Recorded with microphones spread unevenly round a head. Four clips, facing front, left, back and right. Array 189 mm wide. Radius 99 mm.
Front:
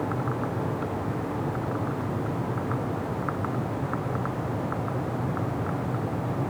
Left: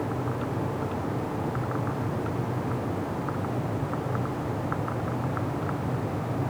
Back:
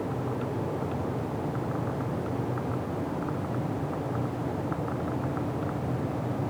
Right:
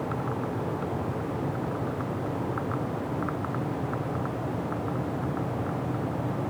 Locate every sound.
Only background noise.